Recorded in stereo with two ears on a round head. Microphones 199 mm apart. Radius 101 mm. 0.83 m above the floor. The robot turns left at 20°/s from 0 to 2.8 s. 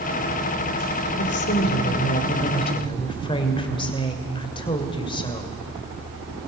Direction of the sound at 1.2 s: 55° left.